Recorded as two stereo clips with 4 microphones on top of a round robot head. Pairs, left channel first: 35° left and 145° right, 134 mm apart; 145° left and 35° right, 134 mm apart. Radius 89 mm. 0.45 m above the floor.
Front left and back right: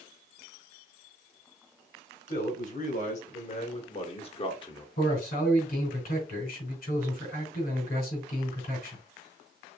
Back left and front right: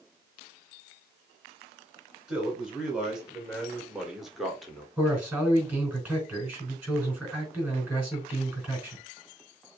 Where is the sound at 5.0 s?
40° left, 4 m.